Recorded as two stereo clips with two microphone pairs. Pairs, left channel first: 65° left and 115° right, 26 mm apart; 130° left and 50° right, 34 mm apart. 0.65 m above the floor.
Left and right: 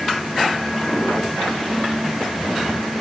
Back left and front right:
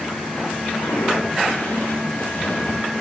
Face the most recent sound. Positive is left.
turn(degrees=175)